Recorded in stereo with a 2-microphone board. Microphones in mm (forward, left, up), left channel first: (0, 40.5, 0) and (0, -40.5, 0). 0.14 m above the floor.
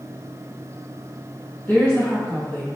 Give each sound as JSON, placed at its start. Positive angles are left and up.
{"t": 1.7, "sound": "a woman speaking", "side_deg": 30, "distance_m": 1.7}